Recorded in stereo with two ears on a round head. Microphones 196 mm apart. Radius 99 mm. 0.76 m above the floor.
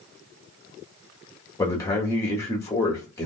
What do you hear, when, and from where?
1.6 s a man speaking: 15° left (ahead or behind), 1.1 m